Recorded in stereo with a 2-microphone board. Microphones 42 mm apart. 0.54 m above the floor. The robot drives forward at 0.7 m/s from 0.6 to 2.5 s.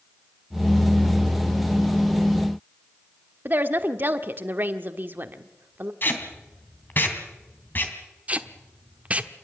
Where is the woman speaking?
45° right (ahead or behind), 1.2 m.